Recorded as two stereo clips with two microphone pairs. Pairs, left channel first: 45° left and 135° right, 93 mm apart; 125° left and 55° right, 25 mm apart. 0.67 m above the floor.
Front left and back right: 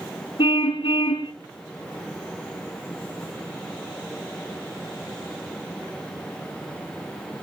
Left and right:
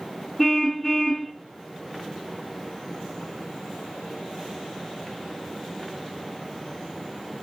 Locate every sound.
0.4 s a car horn: 45° left, 2.5 m